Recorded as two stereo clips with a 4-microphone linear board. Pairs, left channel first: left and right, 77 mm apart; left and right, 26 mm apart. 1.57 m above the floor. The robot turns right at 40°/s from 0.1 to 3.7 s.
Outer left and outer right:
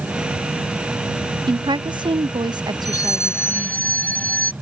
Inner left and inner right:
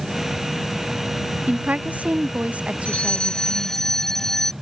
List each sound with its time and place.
1.5 s a woman speaking: 115° right; by 3.9 s 25° right
2.9 s a fire alarm: 125° left; by 4.5 s 160° left